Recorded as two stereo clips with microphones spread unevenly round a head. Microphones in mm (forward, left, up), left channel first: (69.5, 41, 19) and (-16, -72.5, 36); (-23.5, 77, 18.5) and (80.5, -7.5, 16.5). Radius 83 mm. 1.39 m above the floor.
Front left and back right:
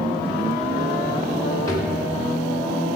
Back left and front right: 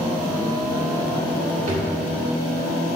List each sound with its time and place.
1.7 s a drawer: 15° right, 2.5 m